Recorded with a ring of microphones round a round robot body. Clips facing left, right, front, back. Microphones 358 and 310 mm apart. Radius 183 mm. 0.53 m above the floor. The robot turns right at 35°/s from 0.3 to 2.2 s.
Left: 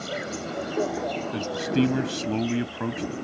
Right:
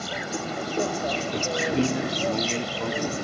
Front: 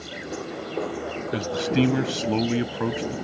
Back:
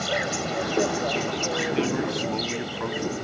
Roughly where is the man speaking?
Ahead.